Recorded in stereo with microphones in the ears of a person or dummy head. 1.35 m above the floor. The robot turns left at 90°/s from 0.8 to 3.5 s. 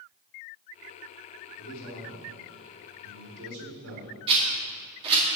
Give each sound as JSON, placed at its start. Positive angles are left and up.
{"t": 1.6, "sound": "a man speaking", "azimuth_deg": 80, "distance_m": 4.5}
{"t": 4.3, "sound": "a rattle", "side_deg": -35, "distance_m": 3.0}